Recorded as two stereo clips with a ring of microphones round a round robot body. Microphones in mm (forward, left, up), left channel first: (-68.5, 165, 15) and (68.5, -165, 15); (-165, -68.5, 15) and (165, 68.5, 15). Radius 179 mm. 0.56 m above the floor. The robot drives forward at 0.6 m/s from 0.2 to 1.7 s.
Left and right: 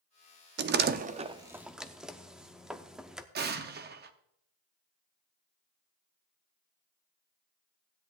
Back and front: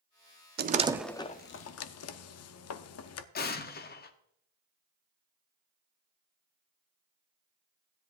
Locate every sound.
0.6 s a door slam: 25° right, 0.6 m; by 3.2 s 155° right, 0.6 m
3.4 s an explosion: 110° right, 0.7 m